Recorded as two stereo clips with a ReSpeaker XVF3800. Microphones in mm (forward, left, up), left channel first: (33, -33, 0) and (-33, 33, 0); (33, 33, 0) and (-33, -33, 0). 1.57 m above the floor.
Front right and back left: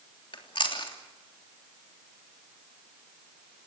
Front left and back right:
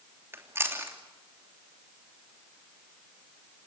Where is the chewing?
75° right, 3 m.